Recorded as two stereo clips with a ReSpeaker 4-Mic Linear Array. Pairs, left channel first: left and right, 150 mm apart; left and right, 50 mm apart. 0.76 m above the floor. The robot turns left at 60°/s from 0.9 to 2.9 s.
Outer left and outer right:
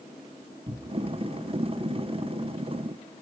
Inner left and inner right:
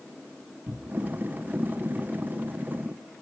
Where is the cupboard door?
35° right (ahead or behind), 3.5 m; by 1.1 s 45° right (ahead or behind), 3.5 m.